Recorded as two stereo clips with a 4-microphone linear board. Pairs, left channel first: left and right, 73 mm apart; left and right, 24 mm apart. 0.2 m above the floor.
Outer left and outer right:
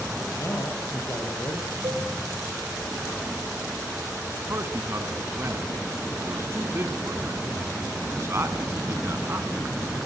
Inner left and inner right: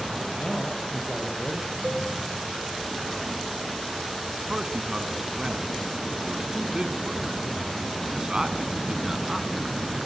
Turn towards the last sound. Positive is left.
turn(degrees=-40)  # may be behind; listen again after turning